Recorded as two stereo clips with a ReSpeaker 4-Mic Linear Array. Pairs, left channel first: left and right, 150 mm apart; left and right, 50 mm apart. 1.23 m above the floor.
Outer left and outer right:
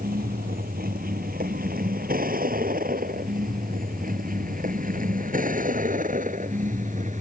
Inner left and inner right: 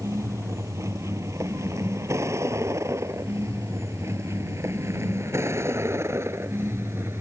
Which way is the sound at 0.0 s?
80° right.